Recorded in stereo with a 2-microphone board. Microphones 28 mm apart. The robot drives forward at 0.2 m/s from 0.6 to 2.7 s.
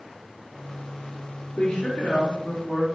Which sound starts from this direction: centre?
A woman speaking, at 1.6 s.